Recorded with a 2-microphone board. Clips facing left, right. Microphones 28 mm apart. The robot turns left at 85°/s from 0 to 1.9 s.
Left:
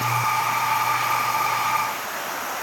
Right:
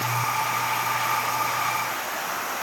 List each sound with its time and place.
Only background noise.